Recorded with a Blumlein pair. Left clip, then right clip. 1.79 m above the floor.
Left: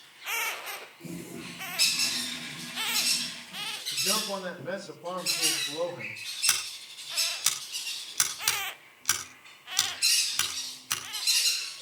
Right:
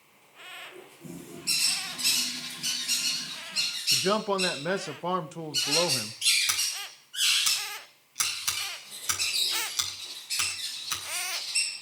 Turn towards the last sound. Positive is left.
turn(degrees=15)